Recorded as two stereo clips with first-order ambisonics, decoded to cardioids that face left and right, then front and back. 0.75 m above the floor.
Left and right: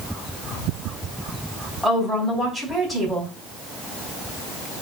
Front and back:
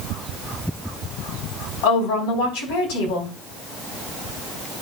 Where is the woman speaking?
Straight ahead, 4.5 m.